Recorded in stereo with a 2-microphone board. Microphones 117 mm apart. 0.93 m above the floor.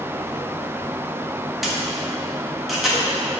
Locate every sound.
1.6 s a camera shutter: centre (ahead or behind), 1.4 m